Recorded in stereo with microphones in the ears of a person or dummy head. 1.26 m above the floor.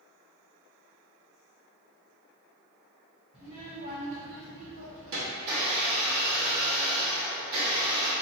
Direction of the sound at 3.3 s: Centre (ahead or behind).